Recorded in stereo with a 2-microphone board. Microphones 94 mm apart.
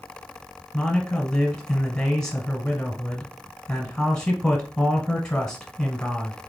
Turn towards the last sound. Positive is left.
turn(degrees=10)  # may be behind; listen again after turning